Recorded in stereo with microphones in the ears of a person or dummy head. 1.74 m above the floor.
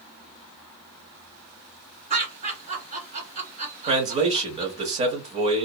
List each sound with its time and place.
2.1 s laughter: 45° right (ahead or behind), 1.7 m
3.9 s a man speaking: 35° right (ahead or behind), 1.0 m